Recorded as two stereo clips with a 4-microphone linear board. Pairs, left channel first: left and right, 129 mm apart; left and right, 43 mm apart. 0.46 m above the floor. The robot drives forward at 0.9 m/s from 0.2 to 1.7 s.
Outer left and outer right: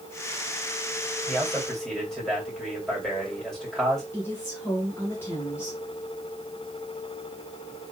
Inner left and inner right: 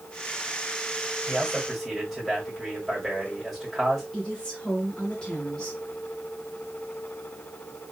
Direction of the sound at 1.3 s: 5° left (ahead or behind).